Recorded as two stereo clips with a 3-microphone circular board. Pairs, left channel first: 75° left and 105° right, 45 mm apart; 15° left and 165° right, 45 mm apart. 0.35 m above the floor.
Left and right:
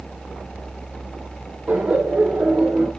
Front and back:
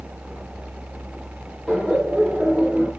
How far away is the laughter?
About 1.1 m.